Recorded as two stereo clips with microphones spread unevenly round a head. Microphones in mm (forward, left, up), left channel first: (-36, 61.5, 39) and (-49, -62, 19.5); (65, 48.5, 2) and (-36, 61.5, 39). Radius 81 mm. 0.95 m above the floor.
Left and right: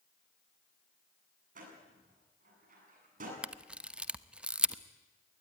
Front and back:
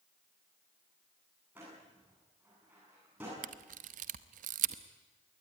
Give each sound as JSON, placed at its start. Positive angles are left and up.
{"t": 1.6, "sound": "a door slam", "azimuth_deg": -105, "distance_m": 8.5}
{"t": 3.4, "sound": "a camera shutter", "azimuth_deg": -175, "distance_m": 0.8}